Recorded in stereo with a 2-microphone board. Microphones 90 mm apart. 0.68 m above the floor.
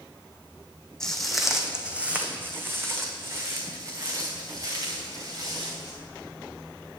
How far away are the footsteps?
About 1.3 m.